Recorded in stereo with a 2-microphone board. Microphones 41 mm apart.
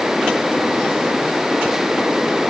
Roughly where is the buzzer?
No buzzer in this recording.